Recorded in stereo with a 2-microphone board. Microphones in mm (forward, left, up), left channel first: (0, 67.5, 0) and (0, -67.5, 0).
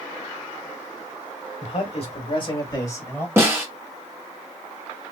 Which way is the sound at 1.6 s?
55° left (ahead or behind).